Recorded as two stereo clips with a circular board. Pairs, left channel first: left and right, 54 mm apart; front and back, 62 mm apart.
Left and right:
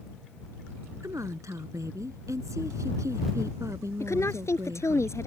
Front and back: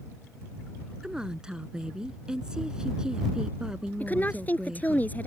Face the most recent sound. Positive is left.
turn(degrees=65)